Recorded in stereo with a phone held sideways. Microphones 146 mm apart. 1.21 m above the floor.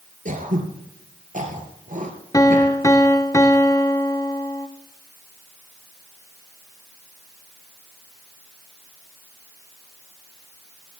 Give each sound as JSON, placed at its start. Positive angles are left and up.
{"t": 0.2, "sound": "throat clearing", "side_deg": -60, "distance_m": 3.5}
{"t": 2.3, "sound": "a piano", "side_deg": 20, "distance_m": 0.8}